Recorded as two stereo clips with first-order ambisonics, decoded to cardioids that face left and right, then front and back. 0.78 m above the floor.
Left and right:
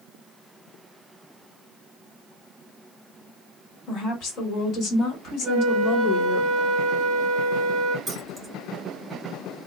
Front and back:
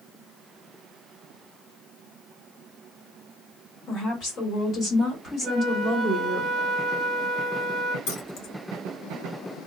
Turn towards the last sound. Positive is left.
turn(degrees=-5)